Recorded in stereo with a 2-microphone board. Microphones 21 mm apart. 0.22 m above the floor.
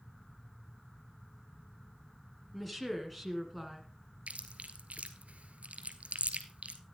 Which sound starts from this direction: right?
Chewing, at 4.3 s.